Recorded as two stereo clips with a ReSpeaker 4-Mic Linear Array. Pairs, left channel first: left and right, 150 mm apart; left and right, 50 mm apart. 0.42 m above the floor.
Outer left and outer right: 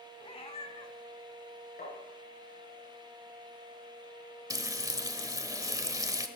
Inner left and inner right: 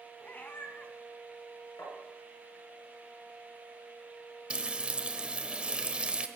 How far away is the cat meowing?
About 1.5 m.